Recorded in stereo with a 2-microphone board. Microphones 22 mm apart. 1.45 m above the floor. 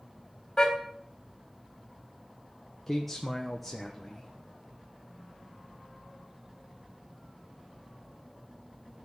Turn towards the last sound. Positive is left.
turn(degrees=5)  # may be behind; listen again after turning